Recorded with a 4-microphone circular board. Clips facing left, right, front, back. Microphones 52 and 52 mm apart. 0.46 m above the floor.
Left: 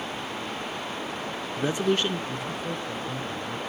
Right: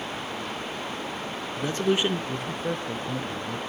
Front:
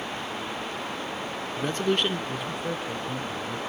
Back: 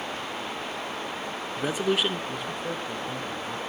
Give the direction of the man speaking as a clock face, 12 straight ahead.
8 o'clock.